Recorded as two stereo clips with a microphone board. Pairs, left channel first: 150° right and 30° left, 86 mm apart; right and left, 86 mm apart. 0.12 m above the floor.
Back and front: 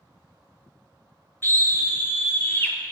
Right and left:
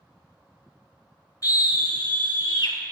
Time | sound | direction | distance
1.4 | a scream | 100° right | 2 m